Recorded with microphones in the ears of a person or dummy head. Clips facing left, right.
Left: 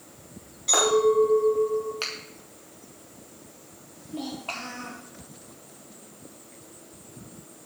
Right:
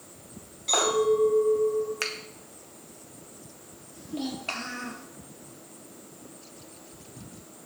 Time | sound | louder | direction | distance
0.7 | a clink | left 3 dB | 10° left (ahead or behind) | 6 m
2.0 | a finger snap | right 2 dB | 25° right (ahead or behind) | 1.4 m
4.0 | a child speaking | right 2 dB | 20° right (ahead or behind) | 3.5 m